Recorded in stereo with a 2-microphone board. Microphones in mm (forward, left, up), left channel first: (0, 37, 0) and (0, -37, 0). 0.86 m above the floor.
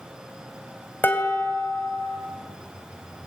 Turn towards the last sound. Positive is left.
turn(degrees=25)  # may be behind; listen again after turning